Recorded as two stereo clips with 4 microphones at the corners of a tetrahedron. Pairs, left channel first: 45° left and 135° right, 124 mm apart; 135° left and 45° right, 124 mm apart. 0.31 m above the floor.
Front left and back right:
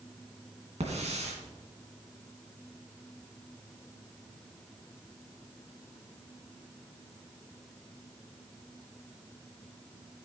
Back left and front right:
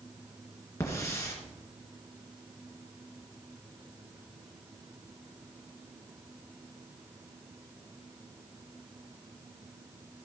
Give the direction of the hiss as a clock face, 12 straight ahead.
5 o'clock.